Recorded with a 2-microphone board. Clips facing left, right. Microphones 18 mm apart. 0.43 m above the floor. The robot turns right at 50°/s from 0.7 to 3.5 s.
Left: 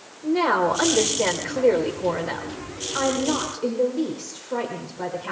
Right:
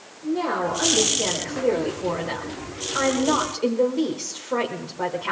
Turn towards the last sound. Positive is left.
turn(degrees=-155)